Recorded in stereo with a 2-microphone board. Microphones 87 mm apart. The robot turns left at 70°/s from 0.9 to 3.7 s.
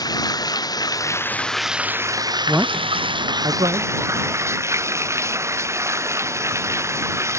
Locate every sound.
0.0 s running water: 50° left; by 7.4 s 145° right
2.5 s a man speaking: 15° right (ahead or behind); by 3.9 s 70° right (ahead or behind)